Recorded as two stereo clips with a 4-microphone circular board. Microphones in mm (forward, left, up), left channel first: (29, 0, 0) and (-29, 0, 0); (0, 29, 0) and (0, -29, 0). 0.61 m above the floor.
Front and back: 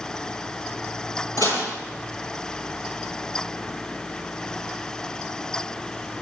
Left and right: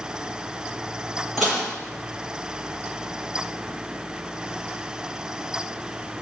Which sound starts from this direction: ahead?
Dishes clattering, at 1.4 s.